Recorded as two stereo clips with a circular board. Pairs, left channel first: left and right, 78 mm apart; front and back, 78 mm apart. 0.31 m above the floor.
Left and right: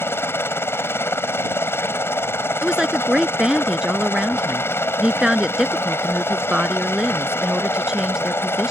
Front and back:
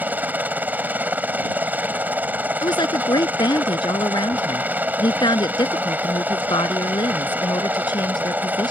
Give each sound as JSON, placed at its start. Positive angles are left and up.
{"t": 0.0, "sound": "a helicopter", "azimuth_deg": 125}
{"t": 2.6, "sound": "a woman speaking", "azimuth_deg": -10}